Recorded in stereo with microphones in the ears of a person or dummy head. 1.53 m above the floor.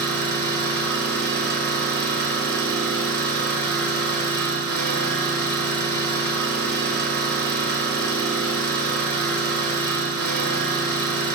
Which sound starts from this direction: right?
An engine running, at 0.0 s.